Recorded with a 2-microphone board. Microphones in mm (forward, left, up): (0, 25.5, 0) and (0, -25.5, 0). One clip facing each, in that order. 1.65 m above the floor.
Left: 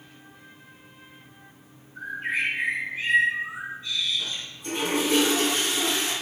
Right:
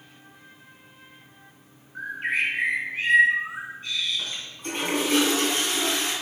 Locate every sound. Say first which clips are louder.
1.9 s a bird: right 2 dB; 55° right (ahead or behind), 1.8 m
4.2 s a toilet flushing: even; 45° right (ahead or behind), 3 m